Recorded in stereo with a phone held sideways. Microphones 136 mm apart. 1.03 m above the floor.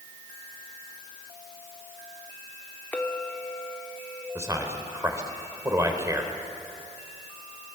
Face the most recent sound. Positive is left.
turn(degrees=-20)  # may be behind; listen again after turning